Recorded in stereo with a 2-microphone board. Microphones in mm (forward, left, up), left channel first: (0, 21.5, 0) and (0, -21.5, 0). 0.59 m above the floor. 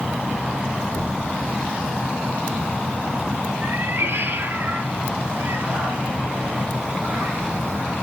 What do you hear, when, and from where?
0.9 s knocking: 40° right (ahead or behind), 4 m
3.6 s a cat meowing: 65° right (ahead or behind), 2.5 m